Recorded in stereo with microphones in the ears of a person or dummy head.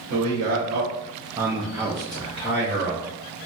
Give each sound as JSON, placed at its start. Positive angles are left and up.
{"t": 0.1, "sound": "a man speaking", "side_deg": -70, "distance_m": 1.0}